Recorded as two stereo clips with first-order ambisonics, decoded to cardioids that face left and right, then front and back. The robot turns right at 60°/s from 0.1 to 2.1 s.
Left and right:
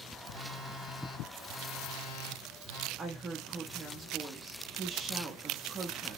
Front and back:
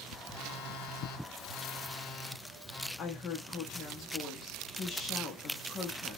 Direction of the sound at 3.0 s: 40° right.